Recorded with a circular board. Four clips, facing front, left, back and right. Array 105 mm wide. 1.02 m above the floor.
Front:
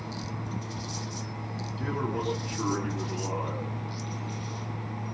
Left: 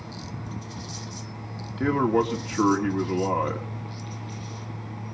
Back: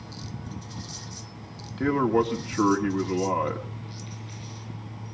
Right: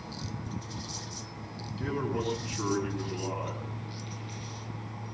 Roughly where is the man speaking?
Behind left.